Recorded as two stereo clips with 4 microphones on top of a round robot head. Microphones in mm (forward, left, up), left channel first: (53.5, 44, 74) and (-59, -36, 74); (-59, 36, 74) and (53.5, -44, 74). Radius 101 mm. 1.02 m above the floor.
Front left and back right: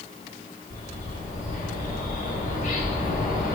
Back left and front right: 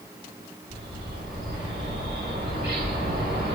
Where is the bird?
5° left, 7.5 m.